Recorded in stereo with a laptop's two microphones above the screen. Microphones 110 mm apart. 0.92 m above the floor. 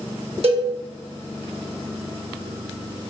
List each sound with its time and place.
0.4 s a cowbell: 60° right (ahead or behind), 0.6 m